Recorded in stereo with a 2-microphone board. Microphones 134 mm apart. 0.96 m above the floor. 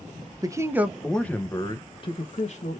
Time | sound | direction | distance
0.4 | a man speaking | 25° right (ahead or behind) | 0.7 m